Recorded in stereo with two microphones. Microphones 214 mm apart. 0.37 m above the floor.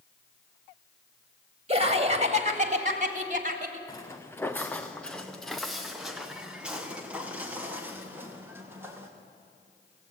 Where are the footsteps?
15° left (ahead or behind), 1.5 m; by 9.1 s 10° right (ahead or behind), 4 m.